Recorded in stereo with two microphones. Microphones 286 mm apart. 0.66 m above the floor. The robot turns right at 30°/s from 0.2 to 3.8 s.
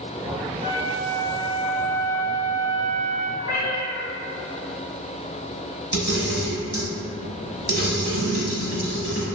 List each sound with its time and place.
0.6 s a flute: 130° right, 1.2 m; by 3.3 s 45° right, 1.2 m
3.4 s a cat meowing: 75° right (ahead or behind), 1.3 m; by 4.0 s 90° right, 1.3 m
5.9 s a camera shutter: 40° right (ahead or behind), 0.9 m